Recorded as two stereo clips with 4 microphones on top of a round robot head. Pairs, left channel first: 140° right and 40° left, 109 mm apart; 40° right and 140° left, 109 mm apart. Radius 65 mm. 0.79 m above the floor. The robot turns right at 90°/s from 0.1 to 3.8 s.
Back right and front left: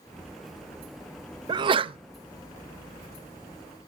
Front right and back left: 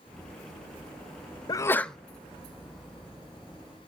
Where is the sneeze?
5° left, 0.5 m; by 2.0 s 50° left, 0.5 m.